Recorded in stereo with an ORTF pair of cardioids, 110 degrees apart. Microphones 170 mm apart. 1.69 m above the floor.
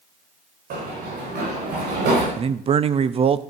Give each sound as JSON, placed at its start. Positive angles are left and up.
{"t": 0.7, "sound": "running footsteps", "azimuth_deg": -65, "distance_m": 8.0}
{"t": 2.4, "sound": "a man speaking", "azimuth_deg": -35, "distance_m": 0.6}